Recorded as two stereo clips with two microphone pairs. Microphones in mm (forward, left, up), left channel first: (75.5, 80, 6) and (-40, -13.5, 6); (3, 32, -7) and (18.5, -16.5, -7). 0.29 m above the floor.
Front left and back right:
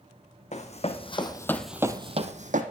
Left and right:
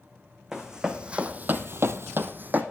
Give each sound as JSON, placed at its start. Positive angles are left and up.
{"t": 0.5, "sound": "running footsteps", "azimuth_deg": 5, "distance_m": 1.2}